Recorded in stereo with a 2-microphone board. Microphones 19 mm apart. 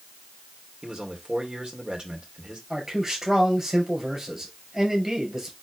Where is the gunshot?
I don't hear a gunshot.